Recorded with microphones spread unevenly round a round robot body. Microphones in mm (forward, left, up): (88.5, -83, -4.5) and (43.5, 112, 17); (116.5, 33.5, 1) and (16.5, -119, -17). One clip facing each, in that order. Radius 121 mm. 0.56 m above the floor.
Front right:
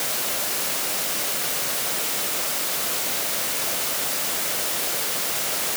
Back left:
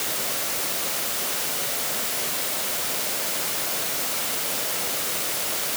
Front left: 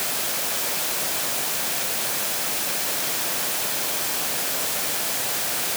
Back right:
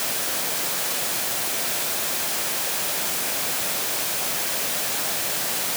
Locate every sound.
Only background noise.